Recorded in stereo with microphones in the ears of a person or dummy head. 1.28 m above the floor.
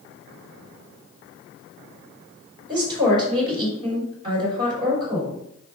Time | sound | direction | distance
2.7 | a woman speaking | 25° right (ahead or behind) | 4.5 m